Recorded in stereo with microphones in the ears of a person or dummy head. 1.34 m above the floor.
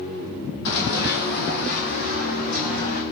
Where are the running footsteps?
65° left (ahead or behind), 3 m; by 3.0 s 50° left (ahead or behind), 4.5 m.